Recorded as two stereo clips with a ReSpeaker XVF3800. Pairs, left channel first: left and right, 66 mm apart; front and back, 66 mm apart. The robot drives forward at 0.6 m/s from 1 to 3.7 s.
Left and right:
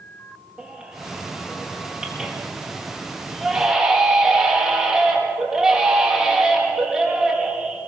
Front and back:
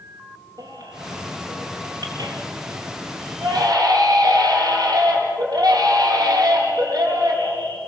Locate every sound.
0.6 s a baby crying: 170° right, 3.5 m; by 7.8 s 175° right, 5 m